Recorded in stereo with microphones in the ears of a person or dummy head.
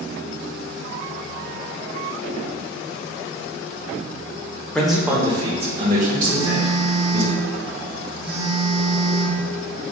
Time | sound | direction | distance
4.8 | a man speaking | 5° left (ahead or behind) | 0.8 m
6.2 | a phone buzzing | 50° right (ahead or behind) | 1.2 m